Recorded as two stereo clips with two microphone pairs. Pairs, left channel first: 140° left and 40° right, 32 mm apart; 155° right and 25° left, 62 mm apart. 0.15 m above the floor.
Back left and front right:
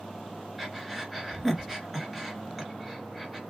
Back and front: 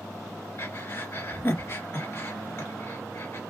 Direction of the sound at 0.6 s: 125° right.